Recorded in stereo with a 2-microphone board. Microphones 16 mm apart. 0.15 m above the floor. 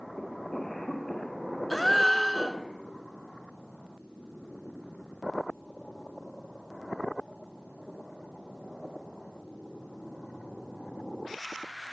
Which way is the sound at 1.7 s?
10° left (ahead or behind).